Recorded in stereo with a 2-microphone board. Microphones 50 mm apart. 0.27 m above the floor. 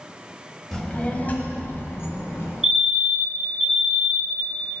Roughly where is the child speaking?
Centre.